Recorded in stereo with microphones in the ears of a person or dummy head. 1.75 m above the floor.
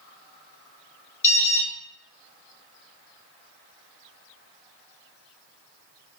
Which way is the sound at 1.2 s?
15° left (ahead or behind).